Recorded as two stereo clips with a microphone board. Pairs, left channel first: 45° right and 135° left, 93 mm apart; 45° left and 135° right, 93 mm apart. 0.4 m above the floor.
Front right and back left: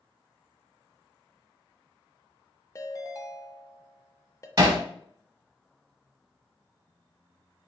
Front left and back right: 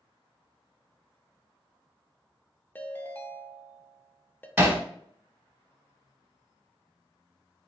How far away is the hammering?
About 0.8 m.